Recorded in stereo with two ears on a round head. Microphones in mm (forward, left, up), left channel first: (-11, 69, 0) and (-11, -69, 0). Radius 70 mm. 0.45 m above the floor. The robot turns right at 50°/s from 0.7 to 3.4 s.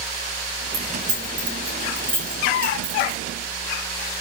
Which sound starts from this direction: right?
Keys jangling, at 0.7 s.